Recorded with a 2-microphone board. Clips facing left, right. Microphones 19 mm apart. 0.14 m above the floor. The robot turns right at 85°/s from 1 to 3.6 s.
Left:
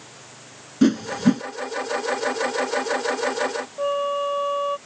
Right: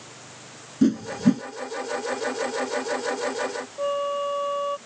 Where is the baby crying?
No baby crying in this recording.